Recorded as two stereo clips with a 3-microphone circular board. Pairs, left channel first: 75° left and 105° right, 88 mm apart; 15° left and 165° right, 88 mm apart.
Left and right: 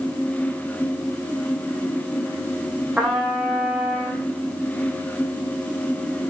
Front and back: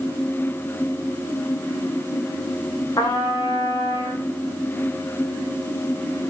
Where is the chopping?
No chopping in this recording.